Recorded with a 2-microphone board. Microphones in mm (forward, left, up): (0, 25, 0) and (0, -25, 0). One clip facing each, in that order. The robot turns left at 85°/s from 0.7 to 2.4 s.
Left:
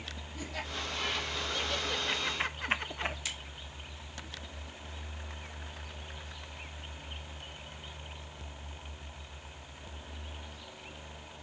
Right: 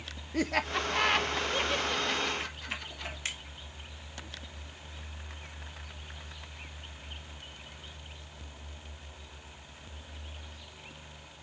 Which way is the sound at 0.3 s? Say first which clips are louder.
Right 10 dB; 70° right (ahead or behind).